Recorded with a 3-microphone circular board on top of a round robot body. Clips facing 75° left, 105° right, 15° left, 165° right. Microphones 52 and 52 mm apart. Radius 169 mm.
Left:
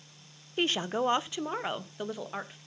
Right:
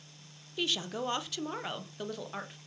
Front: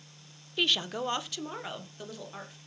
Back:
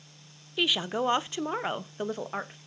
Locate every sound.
0.6 s a woman speaking: 115° left, 1.0 m; by 2.6 s 155° left, 2.5 m